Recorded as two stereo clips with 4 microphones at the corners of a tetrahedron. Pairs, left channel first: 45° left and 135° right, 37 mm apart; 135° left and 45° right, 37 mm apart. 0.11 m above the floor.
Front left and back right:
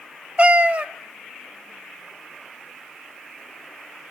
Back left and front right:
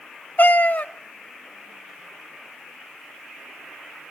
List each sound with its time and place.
0.4 s a cat meowing: 175° left, 0.6 m